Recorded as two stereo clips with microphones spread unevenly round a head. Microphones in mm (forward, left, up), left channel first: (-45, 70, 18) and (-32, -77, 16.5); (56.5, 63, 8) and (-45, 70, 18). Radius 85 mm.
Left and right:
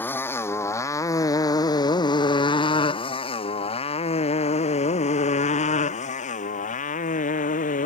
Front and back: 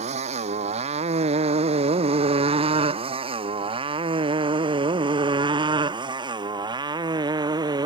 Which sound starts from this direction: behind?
A motorcycle, at 0.0 s.